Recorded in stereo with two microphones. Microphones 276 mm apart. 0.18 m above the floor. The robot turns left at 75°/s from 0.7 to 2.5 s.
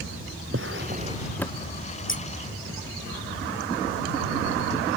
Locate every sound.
0.5 s a drawer: 135° right; by 1.7 s 155° left
2.1 s scissors: 45° left (ahead or behind); by 2.2 s 35° left (ahead or behind)